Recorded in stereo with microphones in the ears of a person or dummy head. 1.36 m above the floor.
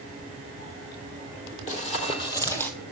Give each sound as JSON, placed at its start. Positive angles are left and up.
{"t": 1.7, "sound": "running footsteps", "side_deg": 45, "distance_m": 2.0}